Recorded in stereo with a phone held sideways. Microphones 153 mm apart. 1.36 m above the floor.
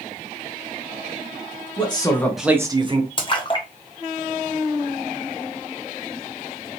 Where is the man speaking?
35° left (ahead or behind), 1.1 m; by 3.1 s 40° right (ahead or behind), 1.1 m.